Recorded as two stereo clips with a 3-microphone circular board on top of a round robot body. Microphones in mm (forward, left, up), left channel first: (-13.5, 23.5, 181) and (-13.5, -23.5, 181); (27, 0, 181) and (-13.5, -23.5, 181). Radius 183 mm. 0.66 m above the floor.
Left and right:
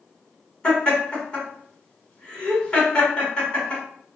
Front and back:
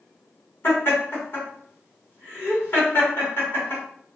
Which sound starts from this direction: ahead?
Laughter, at 0.6 s.